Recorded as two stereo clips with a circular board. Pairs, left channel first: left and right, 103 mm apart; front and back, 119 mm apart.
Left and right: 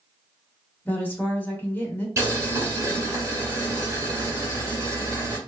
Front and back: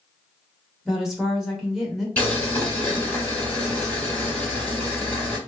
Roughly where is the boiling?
Ahead right.